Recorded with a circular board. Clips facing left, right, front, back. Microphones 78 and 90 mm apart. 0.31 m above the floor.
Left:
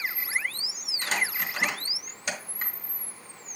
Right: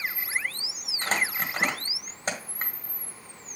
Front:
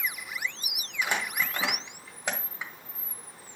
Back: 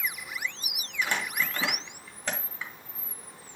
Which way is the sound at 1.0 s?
70° right.